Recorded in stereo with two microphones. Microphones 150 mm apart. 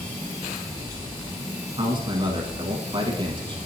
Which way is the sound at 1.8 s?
35° right (ahead or behind).